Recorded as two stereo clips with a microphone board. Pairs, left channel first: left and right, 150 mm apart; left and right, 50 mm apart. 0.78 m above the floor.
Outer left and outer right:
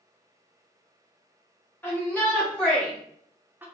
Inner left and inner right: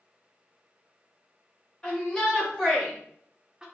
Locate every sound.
1.8 s a shout: 15° left (ahead or behind), 1.8 m; by 3.6 s 15° right (ahead or behind), 0.9 m